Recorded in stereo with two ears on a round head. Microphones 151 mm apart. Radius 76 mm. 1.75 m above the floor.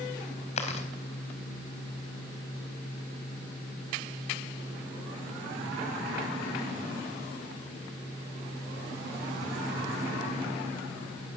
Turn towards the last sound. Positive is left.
turn(degrees=40)  # may be behind; listen again after turning